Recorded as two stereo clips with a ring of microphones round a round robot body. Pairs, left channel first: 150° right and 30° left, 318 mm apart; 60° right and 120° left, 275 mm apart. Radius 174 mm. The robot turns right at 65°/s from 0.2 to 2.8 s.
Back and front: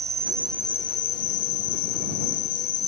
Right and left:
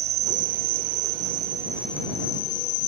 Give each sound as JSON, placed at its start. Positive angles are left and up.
{"t": 0.0, "sound": "an insect", "azimuth_deg": 100}